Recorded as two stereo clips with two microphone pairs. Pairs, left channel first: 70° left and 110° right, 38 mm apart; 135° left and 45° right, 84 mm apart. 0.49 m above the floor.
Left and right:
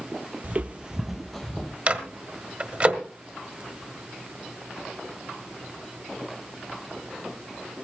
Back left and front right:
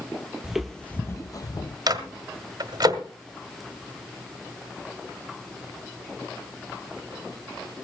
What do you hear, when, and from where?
0.4 s footsteps: 120° right, 0.6 m; by 1.8 s 135° left, 0.8 m
1.9 s a microwave: 70° right, 1.3 m